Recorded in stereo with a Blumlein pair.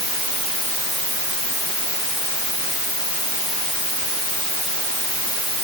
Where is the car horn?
I don't hear a car horn.